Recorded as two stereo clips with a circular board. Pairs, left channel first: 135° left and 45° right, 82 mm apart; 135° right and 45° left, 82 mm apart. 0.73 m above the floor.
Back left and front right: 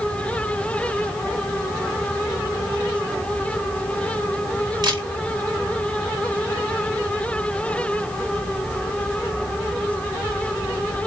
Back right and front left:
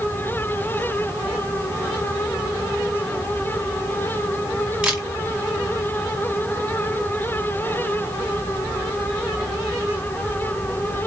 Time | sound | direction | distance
4.8 | a camera shutter | 30° right | 1.5 m